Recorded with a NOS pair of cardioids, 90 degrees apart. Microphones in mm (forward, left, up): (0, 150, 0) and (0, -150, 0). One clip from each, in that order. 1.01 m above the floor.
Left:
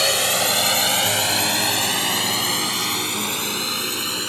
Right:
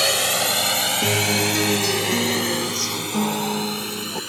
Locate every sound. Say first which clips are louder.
0.0 s a drone: left 1 dB; 5° right; by 4.3 s 40° left
1.0 s a guitar: even; 65° right